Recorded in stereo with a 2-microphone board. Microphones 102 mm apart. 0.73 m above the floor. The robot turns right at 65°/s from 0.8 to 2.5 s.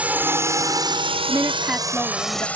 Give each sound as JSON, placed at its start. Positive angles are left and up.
{"t": 0.0, "sound": "a drone", "side_deg": -15}
{"t": 1.3, "sound": "a woman speaking", "azimuth_deg": -40}